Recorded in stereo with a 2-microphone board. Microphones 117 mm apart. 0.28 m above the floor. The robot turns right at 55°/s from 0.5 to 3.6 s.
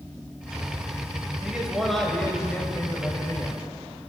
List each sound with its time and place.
1.4 s a man speaking: 10° right (ahead or behind), 1.0 m; by 3.6 s 25° left (ahead or behind), 1.0 m